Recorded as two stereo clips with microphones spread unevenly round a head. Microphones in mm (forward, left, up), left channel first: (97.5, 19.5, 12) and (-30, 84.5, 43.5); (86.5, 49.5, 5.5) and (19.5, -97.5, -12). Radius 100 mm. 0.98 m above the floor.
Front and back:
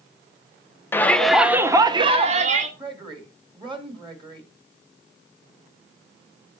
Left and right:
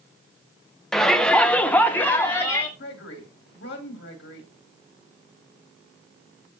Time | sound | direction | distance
0.9 | a shout | 30° right | 0.7 m
2.8 | a woman speaking | 95° left | 2 m